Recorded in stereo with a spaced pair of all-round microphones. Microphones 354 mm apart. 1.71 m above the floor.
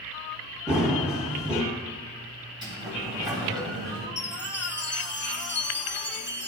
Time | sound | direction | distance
0.7 | running footsteps | 5° right (ahead or behind) | 2 m
2.6 | a sliding door | 10° right (ahead or behind) | 3 m
4.2 | a chime | 30° left (ahead or behind) | 0.8 m